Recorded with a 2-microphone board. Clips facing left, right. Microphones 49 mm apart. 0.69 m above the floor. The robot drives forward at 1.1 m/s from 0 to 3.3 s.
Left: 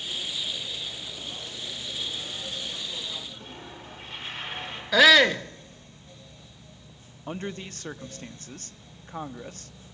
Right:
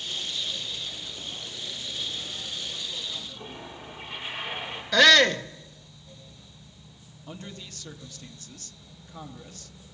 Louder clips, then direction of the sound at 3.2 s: Right 1 dB; 15° right (ahead or behind).